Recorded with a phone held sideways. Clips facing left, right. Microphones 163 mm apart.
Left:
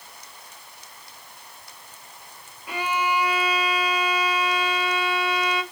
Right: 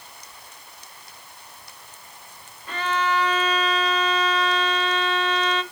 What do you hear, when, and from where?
2.7 s a violin: 10° left (ahead or behind), 0.7 m